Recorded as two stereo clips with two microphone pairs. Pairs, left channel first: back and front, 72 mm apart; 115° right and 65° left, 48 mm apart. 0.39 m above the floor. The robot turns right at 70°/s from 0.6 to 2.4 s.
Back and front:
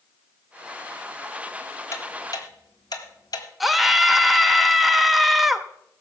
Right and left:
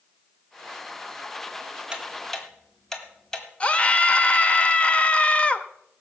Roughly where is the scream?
Right.